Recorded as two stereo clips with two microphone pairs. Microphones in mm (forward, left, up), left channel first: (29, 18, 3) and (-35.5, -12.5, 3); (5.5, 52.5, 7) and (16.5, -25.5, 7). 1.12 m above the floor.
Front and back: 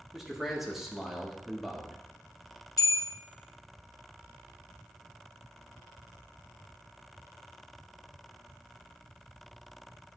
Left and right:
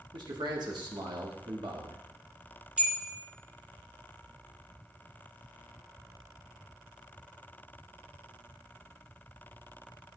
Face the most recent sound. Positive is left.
turn(degrees=-5)